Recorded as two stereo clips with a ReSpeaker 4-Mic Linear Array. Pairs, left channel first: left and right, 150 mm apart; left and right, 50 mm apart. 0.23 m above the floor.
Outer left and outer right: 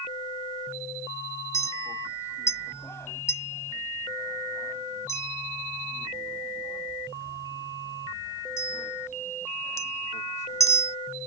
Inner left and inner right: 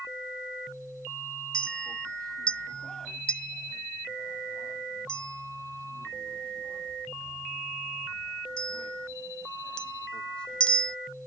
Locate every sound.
1.5 s a clink: 20° left (ahead or behind)